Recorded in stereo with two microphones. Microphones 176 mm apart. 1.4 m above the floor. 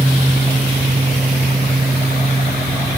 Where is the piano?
I don't hear a piano.